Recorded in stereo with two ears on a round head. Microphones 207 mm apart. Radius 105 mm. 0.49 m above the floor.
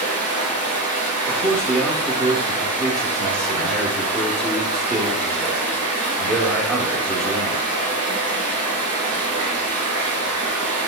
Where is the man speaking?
Centre (ahead or behind), 0.7 m.